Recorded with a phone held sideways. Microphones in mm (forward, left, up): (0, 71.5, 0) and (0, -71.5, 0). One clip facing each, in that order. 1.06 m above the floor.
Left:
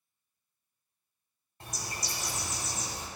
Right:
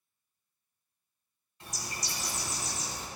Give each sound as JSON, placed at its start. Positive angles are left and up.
{"t": 1.6, "sound": "a bird", "side_deg": 50, "distance_m": 1.0}